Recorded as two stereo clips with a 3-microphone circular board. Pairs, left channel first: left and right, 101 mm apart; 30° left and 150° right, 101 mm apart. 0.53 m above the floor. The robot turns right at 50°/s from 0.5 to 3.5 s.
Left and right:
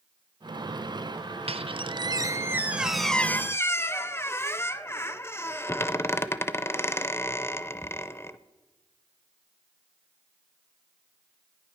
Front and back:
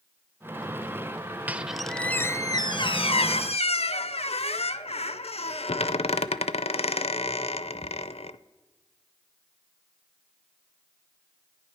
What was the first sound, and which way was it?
A squeak, 75° right.